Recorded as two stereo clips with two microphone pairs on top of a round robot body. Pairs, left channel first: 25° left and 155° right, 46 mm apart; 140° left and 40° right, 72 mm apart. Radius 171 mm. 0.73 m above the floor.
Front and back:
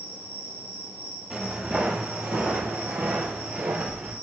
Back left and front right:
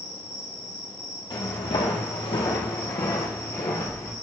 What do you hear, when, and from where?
0.0 s an insect: 170° right, 3.5 m
1.3 s footsteps: 130° left, 1.1 m; by 4.1 s 165° right, 2.0 m